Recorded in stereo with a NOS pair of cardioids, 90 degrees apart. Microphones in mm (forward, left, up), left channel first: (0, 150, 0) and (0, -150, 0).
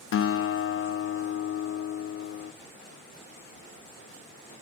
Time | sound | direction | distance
0.1 | a guitar | 45° left | 0.8 m